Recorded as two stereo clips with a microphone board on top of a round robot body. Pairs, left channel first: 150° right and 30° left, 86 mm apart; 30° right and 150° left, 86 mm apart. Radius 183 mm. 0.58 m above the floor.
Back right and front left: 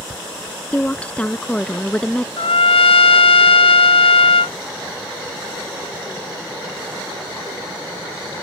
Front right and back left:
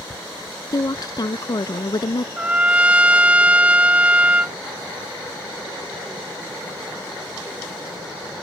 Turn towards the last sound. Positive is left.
turn(degrees=-135)